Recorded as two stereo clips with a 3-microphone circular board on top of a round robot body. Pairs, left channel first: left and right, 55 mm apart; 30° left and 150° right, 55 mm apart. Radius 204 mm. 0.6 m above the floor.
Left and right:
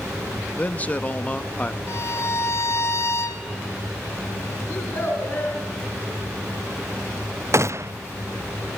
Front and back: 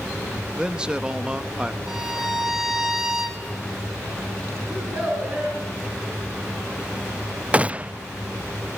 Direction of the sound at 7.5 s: 90° right.